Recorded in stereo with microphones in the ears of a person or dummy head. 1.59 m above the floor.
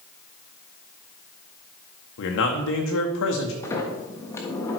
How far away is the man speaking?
About 1.1 m.